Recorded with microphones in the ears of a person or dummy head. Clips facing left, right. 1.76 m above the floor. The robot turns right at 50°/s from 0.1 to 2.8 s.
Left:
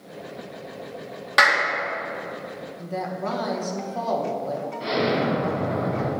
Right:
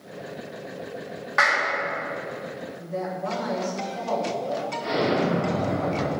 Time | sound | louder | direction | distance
1.4 | a clap | left 3 dB | 50° left (ahead or behind) | 1.7 m
2.8 | a woman speaking | left 1 dB | 55° left (ahead or behind) | 1.7 m
4.8 | an explosion | left 1 dB | 50° left (ahead or behind) | 3 m